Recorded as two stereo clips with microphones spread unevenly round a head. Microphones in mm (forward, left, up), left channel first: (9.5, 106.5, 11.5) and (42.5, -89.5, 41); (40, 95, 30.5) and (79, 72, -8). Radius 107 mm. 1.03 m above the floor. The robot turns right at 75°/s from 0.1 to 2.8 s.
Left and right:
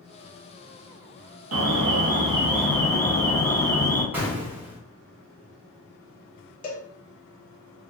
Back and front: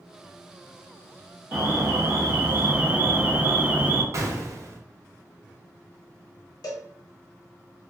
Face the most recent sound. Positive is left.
turn(degrees=130)